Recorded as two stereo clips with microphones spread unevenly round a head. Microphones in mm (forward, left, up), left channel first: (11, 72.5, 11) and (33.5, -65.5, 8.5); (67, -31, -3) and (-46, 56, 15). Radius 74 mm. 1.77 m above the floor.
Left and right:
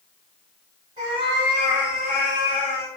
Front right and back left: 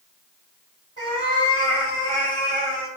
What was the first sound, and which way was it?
A cat meowing, 85° right.